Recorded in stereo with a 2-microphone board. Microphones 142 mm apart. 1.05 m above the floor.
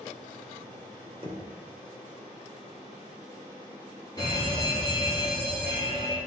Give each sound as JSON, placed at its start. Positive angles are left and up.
{"t": 1.2, "sound": "knocking", "side_deg": -35, "distance_m": 2.5}
{"t": 4.2, "sound": "a fire alarm", "side_deg": 25, "distance_m": 3.0}